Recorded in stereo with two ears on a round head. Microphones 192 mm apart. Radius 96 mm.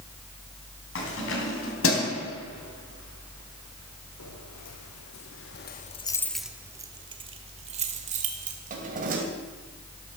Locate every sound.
0.9 s keys jangling: 65° left (ahead or behind), 4.5 m; by 9.2 s 40° right (ahead or behind), 3.5 m